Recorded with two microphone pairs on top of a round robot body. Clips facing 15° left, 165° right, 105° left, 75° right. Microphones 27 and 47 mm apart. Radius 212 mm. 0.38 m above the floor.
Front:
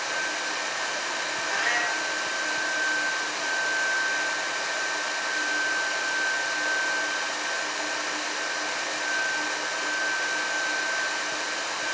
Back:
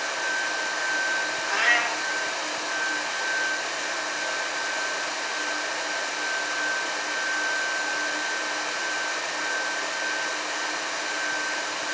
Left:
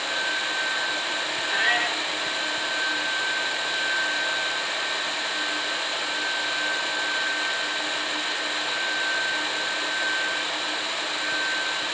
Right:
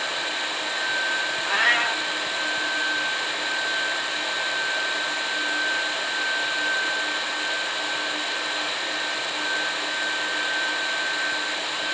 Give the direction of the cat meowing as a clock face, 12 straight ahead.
3 o'clock.